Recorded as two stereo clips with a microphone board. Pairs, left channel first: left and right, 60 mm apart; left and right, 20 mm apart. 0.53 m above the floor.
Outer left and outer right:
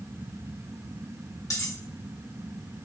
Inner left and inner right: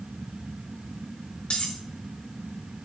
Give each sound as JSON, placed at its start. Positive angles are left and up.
{"t": 1.5, "sound": "cutlery clinking", "side_deg": 60, "distance_m": 1.4}